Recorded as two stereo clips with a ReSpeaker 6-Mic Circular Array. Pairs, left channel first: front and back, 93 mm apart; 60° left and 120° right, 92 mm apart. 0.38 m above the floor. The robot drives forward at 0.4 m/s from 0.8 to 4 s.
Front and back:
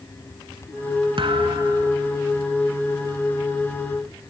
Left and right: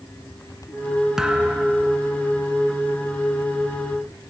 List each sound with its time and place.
1.2 s a thud: 155° left, 1.6 m; by 2.0 s 160° left, 1.9 m